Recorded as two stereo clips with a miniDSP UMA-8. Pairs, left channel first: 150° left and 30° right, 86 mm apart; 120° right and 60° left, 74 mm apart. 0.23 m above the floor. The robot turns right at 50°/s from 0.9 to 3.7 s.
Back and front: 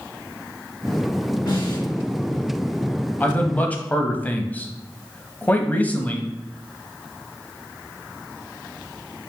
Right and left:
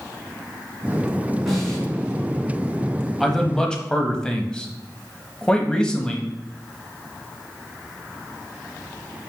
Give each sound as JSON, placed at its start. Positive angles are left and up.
{"t": 1.5, "sound": "a snare drum", "azimuth_deg": 150, "distance_m": 3.0}
{"t": 3.2, "sound": "a man speaking", "azimuth_deg": 160, "distance_m": 1.0}